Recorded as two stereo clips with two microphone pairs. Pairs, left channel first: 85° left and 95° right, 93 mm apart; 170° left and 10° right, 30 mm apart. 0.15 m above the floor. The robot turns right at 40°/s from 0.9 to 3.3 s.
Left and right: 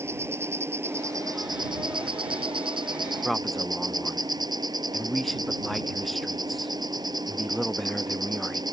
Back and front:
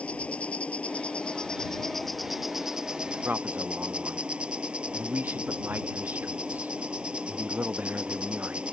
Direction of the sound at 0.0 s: 155° right.